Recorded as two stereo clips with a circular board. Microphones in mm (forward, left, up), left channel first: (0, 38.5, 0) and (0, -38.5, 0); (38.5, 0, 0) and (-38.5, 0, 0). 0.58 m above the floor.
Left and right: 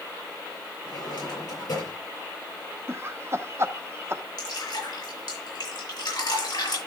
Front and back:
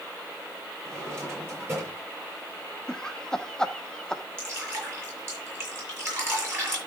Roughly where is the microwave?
No microwave in this recording.